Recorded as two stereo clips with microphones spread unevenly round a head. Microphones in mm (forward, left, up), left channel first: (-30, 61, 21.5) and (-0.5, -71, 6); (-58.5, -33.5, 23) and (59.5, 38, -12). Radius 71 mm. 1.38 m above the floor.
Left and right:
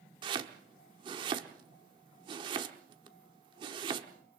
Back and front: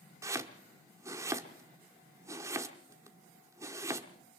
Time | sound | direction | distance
0.2 | chopping | 45° right | 1.0 m